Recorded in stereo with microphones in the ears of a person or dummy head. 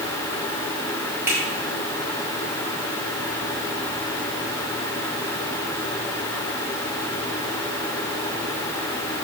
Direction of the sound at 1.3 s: 15° right (ahead or behind).